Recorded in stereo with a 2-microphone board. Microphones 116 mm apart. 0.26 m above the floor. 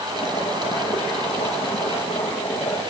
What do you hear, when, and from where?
0.1 s boiling: 55° left (ahead or behind), 7.5 m